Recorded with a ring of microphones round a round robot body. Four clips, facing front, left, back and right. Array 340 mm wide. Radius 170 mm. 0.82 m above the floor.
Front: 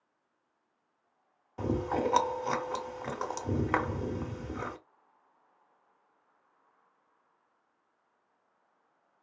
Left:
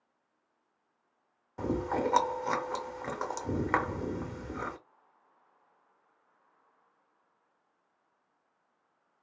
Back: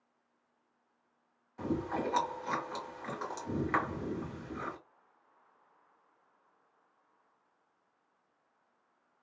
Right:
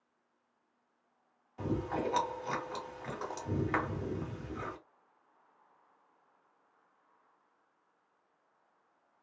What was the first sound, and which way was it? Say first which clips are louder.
Chewing: left 4 dB, front 4 dB; 45° left.